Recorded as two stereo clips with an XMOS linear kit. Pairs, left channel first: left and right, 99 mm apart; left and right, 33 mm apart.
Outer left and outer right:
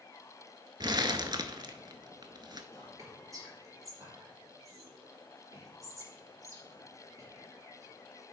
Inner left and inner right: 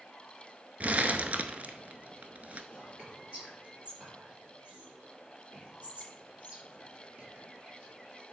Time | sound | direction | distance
0.8 | crumpling | 45° right (ahead or behind) | 0.6 m
2.7 | whispering | 35° right (ahead or behind) | 4 m